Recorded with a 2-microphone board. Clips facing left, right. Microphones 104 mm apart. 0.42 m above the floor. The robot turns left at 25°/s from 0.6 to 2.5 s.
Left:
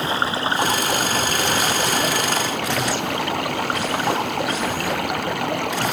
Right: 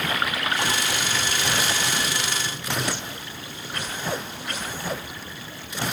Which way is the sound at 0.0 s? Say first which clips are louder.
Left 4 dB; 150° left.